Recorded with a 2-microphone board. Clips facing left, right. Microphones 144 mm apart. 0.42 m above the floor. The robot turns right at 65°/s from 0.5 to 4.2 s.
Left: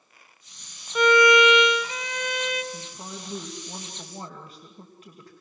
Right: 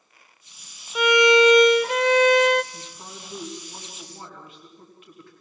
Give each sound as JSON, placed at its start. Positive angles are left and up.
{"t": 0.9, "sound": "a violin", "azimuth_deg": -175, "distance_m": 0.6}
{"t": 2.7, "sound": "a woman speaking", "azimuth_deg": 45, "distance_m": 2.5}